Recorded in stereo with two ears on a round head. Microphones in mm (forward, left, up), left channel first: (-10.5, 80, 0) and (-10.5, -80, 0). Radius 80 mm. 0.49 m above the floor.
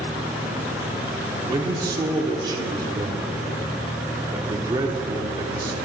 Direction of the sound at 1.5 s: 20° right (ahead or behind).